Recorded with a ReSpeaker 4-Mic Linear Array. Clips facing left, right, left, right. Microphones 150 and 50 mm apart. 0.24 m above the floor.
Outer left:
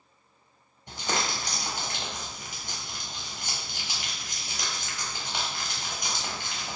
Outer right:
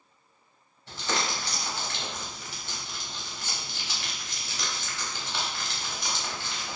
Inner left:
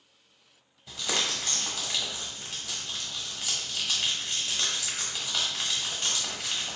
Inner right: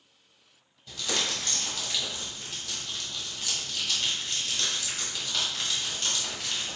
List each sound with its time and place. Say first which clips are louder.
0.9 s crumpling: even, even; 15° left (ahead or behind), 1.0 m